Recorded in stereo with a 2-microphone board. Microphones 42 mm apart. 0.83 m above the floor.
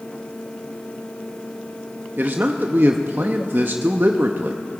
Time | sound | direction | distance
2.2 | a man speaking | 50° right (ahead or behind) | 0.6 m